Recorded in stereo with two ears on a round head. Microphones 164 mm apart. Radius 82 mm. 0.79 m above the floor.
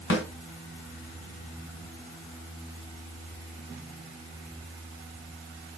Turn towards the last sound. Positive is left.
turn(degrees=80)